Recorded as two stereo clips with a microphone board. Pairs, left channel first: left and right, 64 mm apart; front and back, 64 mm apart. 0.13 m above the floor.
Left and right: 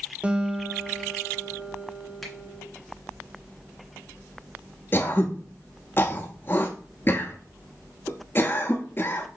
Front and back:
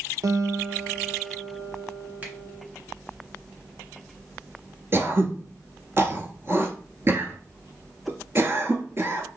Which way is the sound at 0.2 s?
160° right.